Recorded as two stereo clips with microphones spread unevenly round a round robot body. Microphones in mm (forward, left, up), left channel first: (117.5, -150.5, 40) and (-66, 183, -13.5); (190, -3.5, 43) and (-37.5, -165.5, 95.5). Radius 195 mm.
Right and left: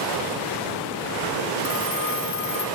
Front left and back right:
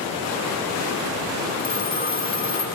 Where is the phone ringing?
85° right, 3.5 m.